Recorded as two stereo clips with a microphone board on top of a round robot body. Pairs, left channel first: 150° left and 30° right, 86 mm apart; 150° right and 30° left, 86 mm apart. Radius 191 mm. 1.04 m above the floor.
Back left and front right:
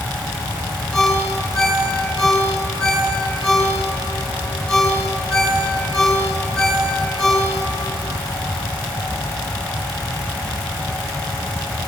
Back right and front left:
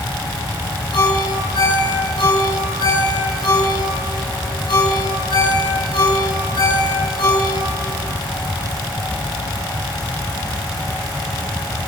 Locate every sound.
0.9 s a ringtone: 130° right, 9.5 m